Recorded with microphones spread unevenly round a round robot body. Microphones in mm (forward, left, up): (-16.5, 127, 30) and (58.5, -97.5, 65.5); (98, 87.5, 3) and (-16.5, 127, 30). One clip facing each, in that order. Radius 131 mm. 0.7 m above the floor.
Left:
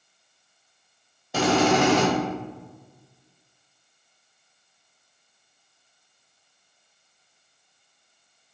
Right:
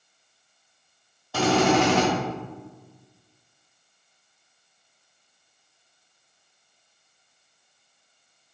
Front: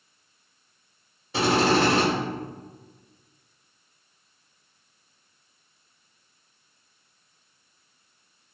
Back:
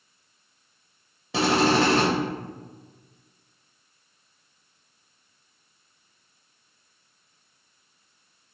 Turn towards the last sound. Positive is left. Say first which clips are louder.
# even, even
turn(degrees=170)